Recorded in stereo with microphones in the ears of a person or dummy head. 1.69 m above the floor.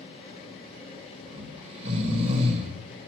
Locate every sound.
1.3 s snoring: 30° right (ahead or behind), 1.4 m